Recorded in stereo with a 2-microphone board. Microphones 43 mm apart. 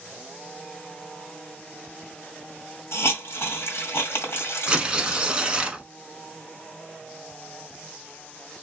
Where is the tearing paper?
25° right (ahead or behind), 0.8 m.